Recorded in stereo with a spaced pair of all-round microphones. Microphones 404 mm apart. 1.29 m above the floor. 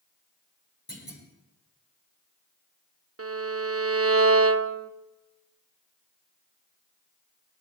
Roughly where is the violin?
Right.